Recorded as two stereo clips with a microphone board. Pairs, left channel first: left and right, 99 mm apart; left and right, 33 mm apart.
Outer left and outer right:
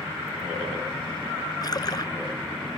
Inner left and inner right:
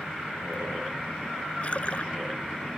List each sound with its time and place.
1.6 s a splash: 40° left (ahead or behind)